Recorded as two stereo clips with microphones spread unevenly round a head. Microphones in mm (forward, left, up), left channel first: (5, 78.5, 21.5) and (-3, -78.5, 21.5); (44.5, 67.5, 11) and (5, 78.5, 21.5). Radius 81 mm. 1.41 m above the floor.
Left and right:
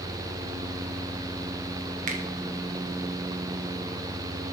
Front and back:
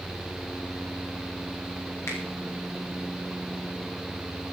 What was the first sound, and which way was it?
A finger snap, 50° right.